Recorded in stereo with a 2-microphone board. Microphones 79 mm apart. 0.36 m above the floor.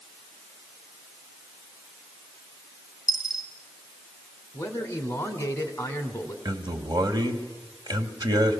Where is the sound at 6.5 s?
60° right (ahead or behind), 1.8 m.